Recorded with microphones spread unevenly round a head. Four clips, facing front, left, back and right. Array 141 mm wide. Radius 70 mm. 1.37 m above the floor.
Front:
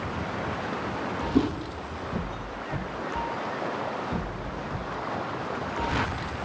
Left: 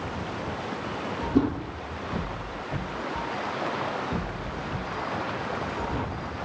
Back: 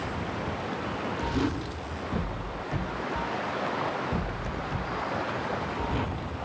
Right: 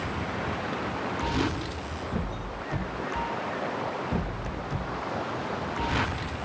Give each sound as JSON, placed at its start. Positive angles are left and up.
{"t": 1.4, "sound": "a whoosh", "azimuth_deg": 45, "distance_m": 1.3}